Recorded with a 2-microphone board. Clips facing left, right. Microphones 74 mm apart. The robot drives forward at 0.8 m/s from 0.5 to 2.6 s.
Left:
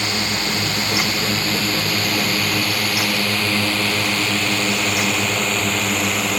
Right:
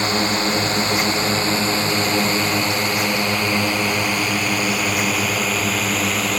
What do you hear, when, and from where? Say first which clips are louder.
0.0 s a drone: right 4 dB; 35° right (ahead or behind); by 6.4 s centre (ahead or behind)